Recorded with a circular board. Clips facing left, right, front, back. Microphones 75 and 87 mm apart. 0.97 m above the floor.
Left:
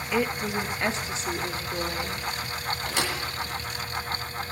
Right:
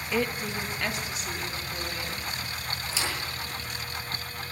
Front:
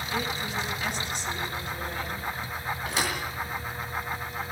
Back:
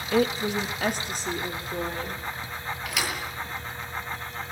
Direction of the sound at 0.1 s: Straight behind.